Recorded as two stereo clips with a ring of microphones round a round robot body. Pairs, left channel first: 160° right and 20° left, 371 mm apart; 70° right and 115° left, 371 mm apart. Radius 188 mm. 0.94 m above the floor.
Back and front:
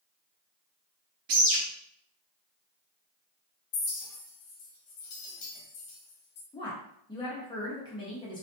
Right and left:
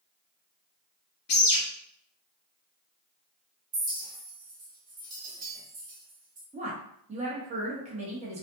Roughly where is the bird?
Ahead.